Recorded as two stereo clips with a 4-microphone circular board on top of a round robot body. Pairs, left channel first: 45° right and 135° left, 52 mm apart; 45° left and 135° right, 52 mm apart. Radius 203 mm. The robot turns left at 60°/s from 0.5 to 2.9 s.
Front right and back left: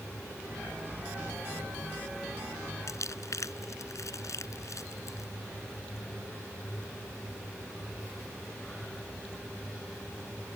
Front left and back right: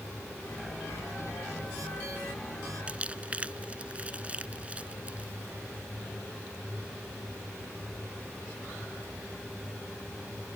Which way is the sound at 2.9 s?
65° right.